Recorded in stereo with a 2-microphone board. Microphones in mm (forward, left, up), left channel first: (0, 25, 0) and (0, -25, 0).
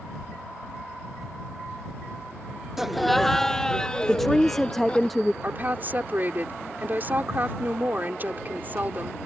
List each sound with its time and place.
2.8 s laughter: 5° right (ahead or behind); by 5.1 s 25° left (ahead or behind)
4.1 s a woman speaking: 5° left (ahead or behind)
5.4 s a woman speaking: 35° right (ahead or behind)